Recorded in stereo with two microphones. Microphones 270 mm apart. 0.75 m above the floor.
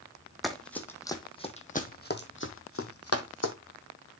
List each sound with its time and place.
0.4 s running footsteps: centre (ahead or behind), 1.7 m; by 3.5 s 65° left (ahead or behind), 1.7 m